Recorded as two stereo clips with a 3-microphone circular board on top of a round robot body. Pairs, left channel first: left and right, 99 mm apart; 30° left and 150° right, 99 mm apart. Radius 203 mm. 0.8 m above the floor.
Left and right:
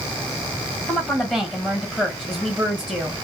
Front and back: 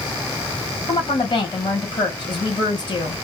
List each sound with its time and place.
0.9 s a woman speaking: 10° left, 1.3 m